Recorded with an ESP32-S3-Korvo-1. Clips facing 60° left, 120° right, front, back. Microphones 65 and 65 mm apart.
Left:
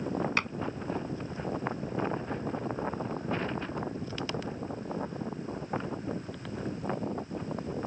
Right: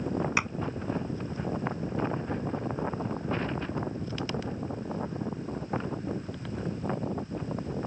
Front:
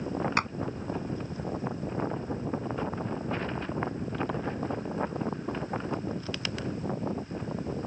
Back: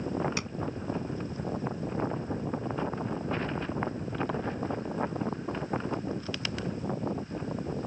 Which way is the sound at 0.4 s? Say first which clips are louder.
Right 2 dB, front 7 dB; 40° right.